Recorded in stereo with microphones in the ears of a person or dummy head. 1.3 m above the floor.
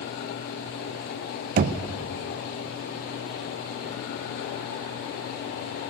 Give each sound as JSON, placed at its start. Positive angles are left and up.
{"t": 1.6, "sound": "knocking", "side_deg": -45, "distance_m": 0.5}